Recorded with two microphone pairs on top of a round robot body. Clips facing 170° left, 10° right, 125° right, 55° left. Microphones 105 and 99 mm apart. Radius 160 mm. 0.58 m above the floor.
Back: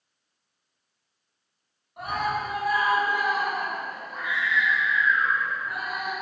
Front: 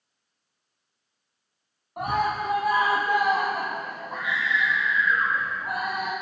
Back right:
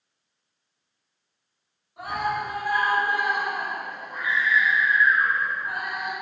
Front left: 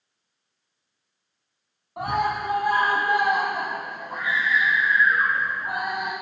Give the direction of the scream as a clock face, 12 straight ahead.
11 o'clock.